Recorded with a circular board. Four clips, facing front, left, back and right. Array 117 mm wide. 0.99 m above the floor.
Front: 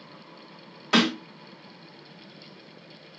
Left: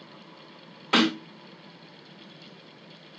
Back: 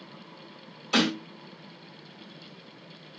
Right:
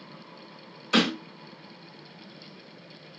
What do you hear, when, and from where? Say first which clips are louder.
0.9 s a snare drum: left 1 dB, front 3 dB; 45° left, 3.5 m